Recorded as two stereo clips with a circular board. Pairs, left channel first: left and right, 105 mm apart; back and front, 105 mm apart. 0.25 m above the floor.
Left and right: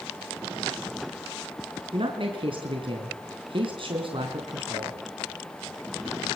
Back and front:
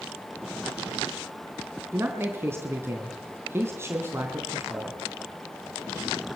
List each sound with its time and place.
1.9 s a man speaking: 65° right, 3 m